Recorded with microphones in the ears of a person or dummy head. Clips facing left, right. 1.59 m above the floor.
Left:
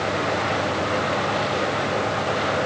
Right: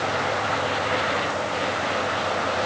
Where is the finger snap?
No finger snap in this recording.